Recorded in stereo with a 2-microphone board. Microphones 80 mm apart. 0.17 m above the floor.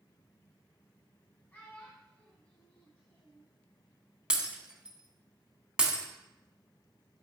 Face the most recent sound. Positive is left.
turn(degrees=-15)  # may be behind; listen again after turning